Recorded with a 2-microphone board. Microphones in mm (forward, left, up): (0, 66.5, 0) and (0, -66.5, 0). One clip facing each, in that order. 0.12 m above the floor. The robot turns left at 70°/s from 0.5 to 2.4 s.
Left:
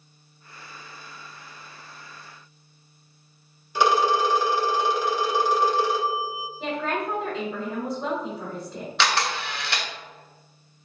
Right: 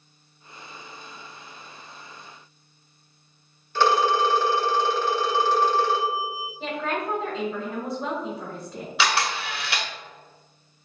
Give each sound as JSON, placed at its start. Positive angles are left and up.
{"t": 3.8, "sound": "a phone ringing", "side_deg": 15, "distance_m": 0.8}
{"t": 6.6, "sound": "a woman speaking", "side_deg": -5, "distance_m": 1.4}
{"t": 9.0, "sound": "a camera shutter", "side_deg": -5, "distance_m": 0.9}